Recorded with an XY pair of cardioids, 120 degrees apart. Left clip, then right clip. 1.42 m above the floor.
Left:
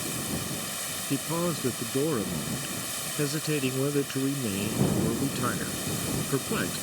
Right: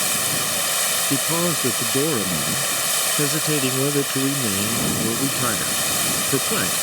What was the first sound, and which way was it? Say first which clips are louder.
Running water: right 11 dB; 65° right.